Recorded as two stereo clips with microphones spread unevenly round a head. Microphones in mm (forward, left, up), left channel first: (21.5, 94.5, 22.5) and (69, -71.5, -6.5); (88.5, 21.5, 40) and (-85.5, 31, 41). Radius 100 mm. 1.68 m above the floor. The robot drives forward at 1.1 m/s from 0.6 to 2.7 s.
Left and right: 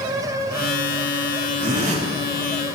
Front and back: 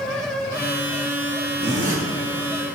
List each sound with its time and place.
1.6 s a zipper: 125° right, 1.7 m; by 2.0 s 135° right, 2.0 m